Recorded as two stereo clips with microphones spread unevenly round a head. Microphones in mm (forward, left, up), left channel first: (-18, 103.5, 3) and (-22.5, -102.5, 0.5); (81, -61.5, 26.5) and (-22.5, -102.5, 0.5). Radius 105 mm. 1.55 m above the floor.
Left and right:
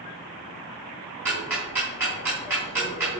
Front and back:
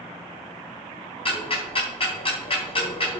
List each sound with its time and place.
1.2 s ticking: 10° right, 5 m